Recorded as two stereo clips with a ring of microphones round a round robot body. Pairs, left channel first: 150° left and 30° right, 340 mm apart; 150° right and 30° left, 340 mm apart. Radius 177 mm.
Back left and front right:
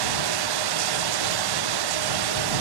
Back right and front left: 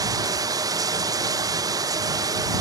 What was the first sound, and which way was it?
Running water, 50° right.